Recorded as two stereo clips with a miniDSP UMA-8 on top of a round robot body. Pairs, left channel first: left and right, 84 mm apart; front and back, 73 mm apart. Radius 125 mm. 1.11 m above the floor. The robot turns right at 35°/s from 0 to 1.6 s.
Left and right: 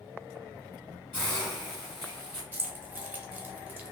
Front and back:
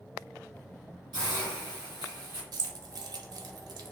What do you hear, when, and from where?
1.1 s a hiss: 155° left, 1.3 m; by 2.4 s 170° left, 1.3 m
2.5 s keys jangling: 160° right, 0.5 m